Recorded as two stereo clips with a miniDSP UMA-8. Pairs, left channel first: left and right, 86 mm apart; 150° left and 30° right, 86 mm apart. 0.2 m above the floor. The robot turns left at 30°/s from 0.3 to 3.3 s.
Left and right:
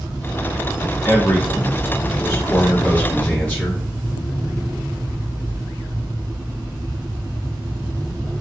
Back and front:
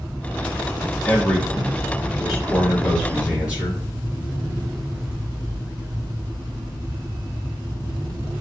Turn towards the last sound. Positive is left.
turn(degrees=35)